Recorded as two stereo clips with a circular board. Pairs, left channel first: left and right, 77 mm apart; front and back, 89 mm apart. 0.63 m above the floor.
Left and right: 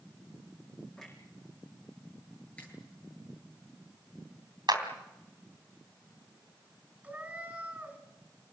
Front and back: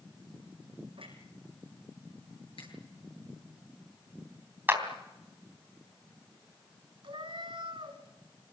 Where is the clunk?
Straight behind, 5.5 m.